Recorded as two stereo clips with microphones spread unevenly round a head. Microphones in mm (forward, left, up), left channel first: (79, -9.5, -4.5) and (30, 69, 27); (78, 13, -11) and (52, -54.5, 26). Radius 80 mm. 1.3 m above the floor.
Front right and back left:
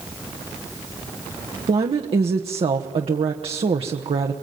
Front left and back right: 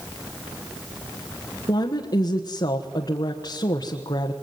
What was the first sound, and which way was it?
A woman speaking, 95° left.